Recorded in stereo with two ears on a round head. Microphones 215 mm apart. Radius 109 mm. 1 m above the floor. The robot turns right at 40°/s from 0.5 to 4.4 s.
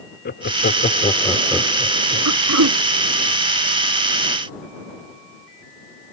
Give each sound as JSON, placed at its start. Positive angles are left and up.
{"t": 0.2, "sound": "laughter", "side_deg": 45}
{"t": 2.2, "sound": "throat clearing", "side_deg": -85}